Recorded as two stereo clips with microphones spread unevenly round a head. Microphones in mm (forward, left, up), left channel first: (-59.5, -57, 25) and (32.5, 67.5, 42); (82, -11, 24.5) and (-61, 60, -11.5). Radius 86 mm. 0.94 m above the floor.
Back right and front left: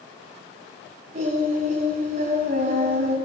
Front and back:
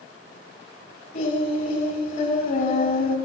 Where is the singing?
5° left, 5.5 m.